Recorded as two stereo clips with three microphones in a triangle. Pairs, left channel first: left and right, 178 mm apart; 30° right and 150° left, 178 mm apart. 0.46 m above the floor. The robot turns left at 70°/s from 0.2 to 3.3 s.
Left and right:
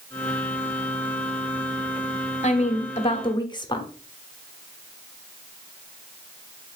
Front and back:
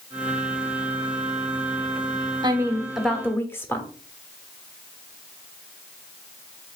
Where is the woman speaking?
100° left, 0.9 m; by 3.9 s 40° left, 0.9 m.